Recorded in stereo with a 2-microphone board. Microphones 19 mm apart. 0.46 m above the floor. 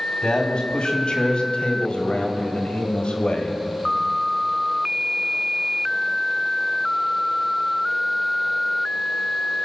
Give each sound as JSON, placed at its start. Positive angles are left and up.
{"t": 0.2, "sound": "a man speaking", "side_deg": 50, "distance_m": 3.0}